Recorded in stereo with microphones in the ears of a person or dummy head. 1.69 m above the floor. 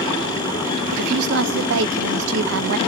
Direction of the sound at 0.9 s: 65° right (ahead or behind).